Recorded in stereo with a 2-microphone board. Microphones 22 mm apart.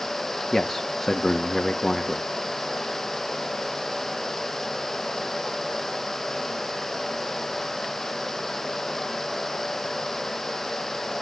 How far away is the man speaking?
About 1.1 m.